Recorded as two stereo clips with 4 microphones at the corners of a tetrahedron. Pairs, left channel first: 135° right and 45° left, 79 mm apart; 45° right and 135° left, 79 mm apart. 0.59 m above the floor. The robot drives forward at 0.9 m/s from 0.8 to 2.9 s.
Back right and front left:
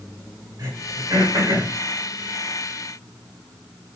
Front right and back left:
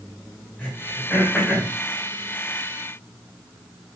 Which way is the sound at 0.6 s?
20° left.